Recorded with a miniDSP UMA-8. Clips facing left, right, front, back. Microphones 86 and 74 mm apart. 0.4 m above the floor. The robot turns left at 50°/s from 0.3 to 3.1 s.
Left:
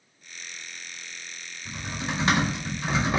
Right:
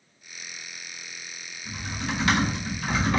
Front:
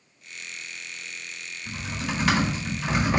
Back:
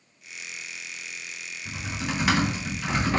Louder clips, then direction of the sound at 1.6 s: Right 1 dB, even; 140° left.